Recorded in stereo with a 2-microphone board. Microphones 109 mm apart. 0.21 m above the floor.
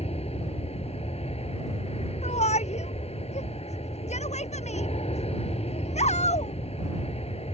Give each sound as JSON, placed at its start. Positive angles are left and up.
{"t": 0.0, "sound": "an aircraft", "side_deg": 65}
{"t": 2.2, "sound": "a shout", "side_deg": 85}